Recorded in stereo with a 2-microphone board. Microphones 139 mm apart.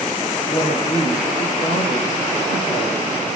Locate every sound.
0.5 s a woman speaking: 65° left (ahead or behind), 7 m